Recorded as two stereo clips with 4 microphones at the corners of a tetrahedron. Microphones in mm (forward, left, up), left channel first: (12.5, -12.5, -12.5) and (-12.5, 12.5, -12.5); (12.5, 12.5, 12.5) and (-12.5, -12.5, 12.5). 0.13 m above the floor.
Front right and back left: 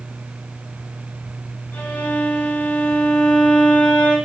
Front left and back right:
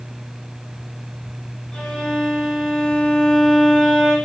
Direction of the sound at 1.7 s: 20° right.